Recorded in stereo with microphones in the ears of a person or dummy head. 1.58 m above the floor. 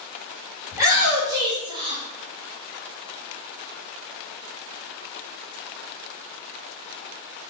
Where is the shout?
10° right (ahead or behind), 1.8 m; by 2.0 s 25° right (ahead or behind), 0.9 m.